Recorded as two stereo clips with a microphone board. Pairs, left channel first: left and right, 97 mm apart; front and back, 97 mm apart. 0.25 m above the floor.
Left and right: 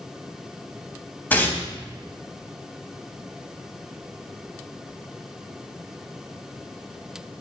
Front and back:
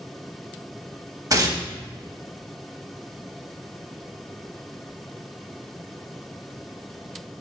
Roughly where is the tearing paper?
Behind left.